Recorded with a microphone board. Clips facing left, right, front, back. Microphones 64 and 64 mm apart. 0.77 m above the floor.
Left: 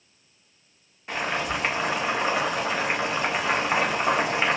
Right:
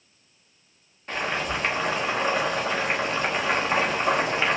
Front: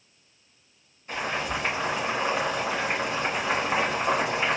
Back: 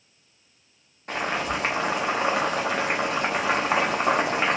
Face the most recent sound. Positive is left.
turn(degrees=175)